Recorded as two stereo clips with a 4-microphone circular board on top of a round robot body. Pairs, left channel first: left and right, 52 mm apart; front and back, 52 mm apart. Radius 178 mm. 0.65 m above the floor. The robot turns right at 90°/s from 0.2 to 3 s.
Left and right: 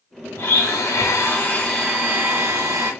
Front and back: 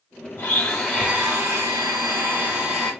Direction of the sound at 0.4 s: 50° left.